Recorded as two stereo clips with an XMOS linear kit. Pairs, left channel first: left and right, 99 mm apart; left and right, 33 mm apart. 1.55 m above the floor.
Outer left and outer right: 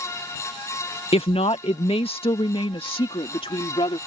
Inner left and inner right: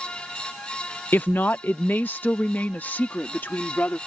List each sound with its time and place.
1.1 s a woman speaking: 75° left (ahead or behind); by 4.0 s 65° left (ahead or behind)